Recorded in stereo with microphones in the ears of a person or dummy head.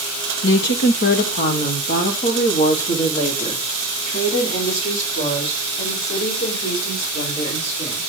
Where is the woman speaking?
65° left (ahead or behind), 1.3 m; by 8.0 s 35° left (ahead or behind), 6.5 m.